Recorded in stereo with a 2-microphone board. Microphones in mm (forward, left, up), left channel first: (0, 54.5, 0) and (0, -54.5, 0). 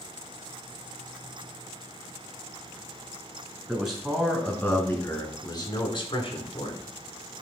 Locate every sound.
3.7 s a man speaking: 15° right (ahead or behind), 2 m; by 6.8 s 50° left (ahead or behind), 2 m